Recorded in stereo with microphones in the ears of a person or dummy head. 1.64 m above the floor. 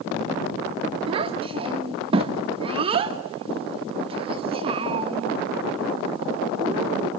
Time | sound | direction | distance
1.1 | a child speaking | 30° right (ahead or behind) | 1.6 m